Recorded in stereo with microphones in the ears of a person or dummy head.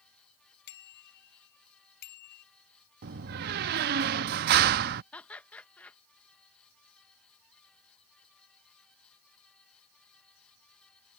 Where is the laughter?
10° left (ahead or behind).